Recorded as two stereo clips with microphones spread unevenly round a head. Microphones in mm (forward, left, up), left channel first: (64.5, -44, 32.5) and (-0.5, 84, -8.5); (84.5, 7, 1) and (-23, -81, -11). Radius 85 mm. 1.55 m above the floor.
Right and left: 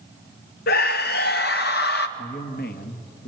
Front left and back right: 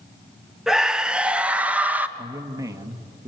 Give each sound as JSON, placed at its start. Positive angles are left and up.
{"t": 0.7, "sound": "a scream", "azimuth_deg": -55, "distance_m": 1.2}
{"t": 2.2, "sound": "a man speaking", "azimuth_deg": -75, "distance_m": 1.9}